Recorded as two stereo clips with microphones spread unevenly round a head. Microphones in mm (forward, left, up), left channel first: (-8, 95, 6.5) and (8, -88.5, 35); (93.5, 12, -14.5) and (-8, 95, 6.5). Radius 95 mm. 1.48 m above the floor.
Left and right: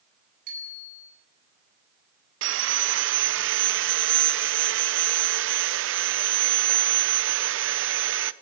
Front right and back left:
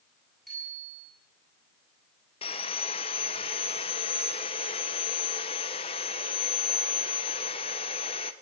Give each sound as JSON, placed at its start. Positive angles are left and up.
{"t": 0.5, "sound": "a bicycle bell", "azimuth_deg": -130, "distance_m": 9.5}
{"t": 2.4, "sound": "sawing", "azimuth_deg": -105, "distance_m": 0.7}